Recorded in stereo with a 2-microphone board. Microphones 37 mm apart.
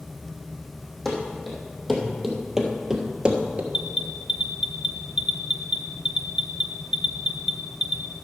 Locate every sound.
1.1 s running footsteps: 5° left (ahead or behind), 3 m; by 3.6 s 35° right (ahead or behind), 1.1 m
3.7 s an alarm: 20° right (ahead or behind), 0.7 m